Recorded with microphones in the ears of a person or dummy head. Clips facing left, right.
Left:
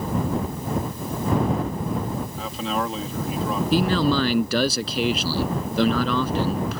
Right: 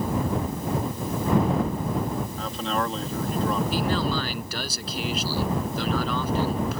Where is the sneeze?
I don't hear a sneeze.